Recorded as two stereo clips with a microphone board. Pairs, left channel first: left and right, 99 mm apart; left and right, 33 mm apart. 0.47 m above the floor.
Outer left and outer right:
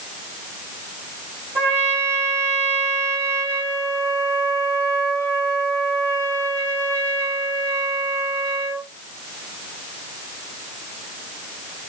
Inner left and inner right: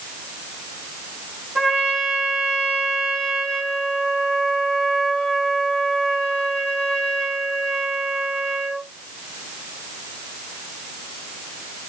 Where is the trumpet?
15° left (ahead or behind), 4.5 m.